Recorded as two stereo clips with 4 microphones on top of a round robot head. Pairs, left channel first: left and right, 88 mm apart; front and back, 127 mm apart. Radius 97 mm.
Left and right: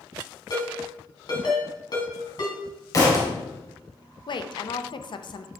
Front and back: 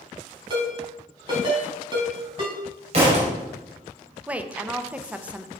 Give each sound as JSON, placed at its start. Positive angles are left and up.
{"t": 0.5, "sound": "a ringtone", "azimuth_deg": 130, "distance_m": 3.0}
{"t": 2.9, "sound": "a thud", "azimuth_deg": 140, "distance_m": 2.5}
{"t": 4.3, "sound": "a woman speaking", "azimuth_deg": 100, "distance_m": 0.7}